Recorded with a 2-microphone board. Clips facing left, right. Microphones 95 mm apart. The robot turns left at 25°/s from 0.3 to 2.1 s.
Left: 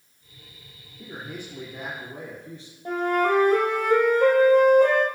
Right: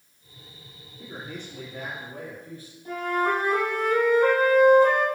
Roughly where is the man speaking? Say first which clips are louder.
Left 1 dB; centre.